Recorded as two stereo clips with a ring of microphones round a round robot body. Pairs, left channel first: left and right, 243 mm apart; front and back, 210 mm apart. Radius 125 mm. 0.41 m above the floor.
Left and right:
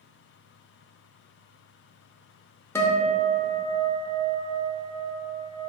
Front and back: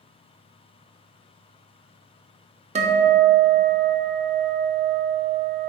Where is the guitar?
160° left, 0.6 m.